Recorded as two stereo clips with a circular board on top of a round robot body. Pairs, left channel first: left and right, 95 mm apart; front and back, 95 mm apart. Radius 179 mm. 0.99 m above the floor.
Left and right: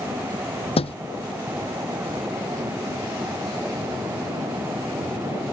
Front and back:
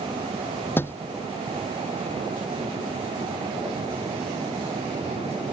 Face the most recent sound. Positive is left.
turn(degrees=70)